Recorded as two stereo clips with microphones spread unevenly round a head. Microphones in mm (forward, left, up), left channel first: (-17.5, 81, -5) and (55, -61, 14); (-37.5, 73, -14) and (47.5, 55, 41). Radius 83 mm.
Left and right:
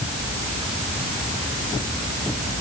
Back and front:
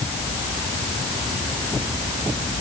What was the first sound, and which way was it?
Only background noise.